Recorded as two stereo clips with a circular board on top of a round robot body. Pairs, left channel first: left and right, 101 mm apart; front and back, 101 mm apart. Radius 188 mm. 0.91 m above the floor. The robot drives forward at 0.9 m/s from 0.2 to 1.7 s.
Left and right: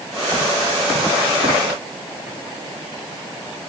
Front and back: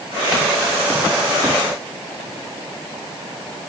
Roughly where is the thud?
No thud in this recording.